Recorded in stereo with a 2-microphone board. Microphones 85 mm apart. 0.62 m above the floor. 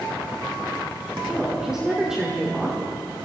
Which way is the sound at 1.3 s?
10° right (ahead or behind).